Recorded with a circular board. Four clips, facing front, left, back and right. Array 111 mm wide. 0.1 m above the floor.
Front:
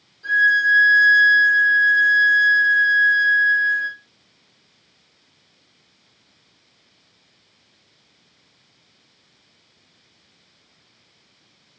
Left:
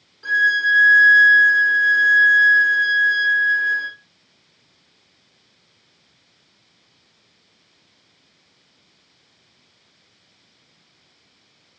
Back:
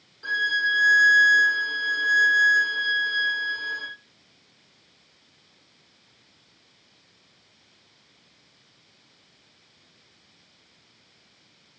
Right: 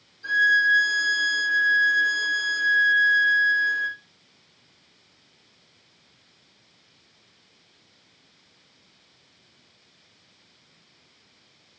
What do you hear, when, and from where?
0.2 s a violin: 125° left, 3.5 m